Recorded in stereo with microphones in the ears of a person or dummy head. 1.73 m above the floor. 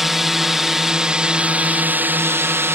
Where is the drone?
Centre (ahead or behind); by 2.8 s 15° right (ahead or behind).